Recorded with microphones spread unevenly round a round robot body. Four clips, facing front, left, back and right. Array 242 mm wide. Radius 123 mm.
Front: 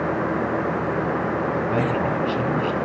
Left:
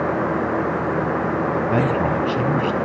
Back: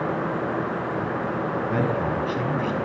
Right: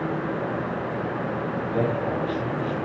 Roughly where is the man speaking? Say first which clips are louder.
Left 3 dB, front 2 dB; left.